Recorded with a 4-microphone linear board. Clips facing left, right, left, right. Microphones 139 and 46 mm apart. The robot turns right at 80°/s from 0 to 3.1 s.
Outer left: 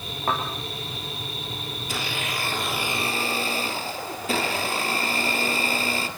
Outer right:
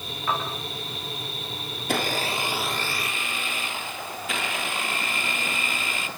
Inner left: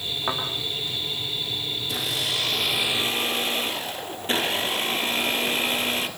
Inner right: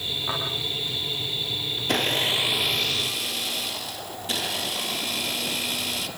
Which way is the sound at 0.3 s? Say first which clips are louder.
Outer left 1 dB, inner left 3 dB; 45° left (ahead or behind).